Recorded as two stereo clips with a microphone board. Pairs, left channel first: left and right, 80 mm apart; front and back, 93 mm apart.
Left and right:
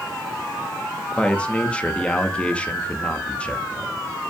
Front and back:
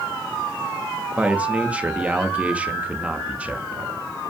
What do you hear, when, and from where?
1.2 s a man speaking: 140° left, 0.9 m